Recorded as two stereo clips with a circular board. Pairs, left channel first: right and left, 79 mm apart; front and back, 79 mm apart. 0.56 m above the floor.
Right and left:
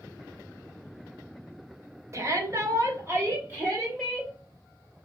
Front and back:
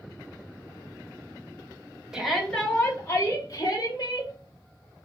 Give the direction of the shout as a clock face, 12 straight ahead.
9 o'clock.